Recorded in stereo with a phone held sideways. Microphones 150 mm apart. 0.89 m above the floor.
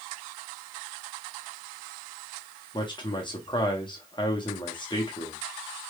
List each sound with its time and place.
2.7 s a man speaking: 30° left (ahead or behind), 0.8 m